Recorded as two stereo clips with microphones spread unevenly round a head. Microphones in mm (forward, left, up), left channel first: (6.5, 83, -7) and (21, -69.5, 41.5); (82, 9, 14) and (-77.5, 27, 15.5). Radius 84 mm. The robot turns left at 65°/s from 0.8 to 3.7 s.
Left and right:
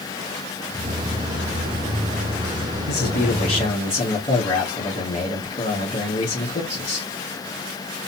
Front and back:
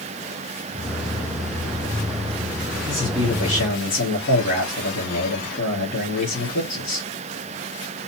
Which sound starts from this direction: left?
A man speaking, at 2.9 s.